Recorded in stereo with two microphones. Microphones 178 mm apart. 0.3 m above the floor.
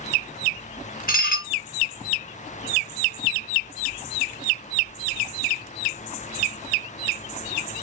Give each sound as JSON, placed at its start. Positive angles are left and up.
{"t": 1.1, "sound": "dishes clattering", "side_deg": 55, "distance_m": 1.4}